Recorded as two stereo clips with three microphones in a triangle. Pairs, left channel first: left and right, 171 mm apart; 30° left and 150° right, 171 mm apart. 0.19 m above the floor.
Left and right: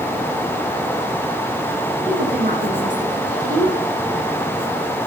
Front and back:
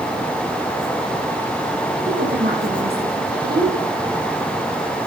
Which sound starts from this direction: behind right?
A woman speaking, at 2.1 s.